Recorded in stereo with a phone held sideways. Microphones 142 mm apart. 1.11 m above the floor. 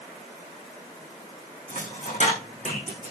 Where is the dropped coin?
60° left (ahead or behind), 5.5 m.